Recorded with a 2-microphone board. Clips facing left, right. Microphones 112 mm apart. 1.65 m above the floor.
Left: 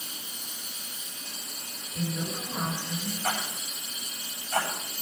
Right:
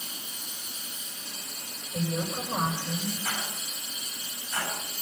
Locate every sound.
1.9 s a woman speaking: 60° right (ahead or behind), 7.5 m
3.2 s a rattle: 65° left (ahead or behind), 8.5 m